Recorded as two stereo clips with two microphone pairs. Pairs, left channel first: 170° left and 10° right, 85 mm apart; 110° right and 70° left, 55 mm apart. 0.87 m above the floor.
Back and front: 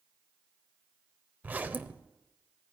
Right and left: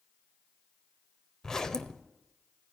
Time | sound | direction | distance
1.4 | a zipper | 50° right | 0.6 m